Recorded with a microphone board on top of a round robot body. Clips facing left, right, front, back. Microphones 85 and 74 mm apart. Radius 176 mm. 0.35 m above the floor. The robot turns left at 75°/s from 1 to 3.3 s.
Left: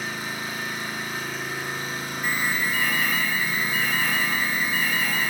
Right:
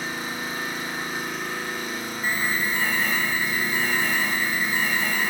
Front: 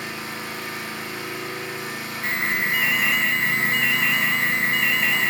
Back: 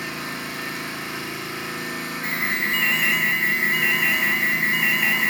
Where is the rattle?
I don't hear a rattle.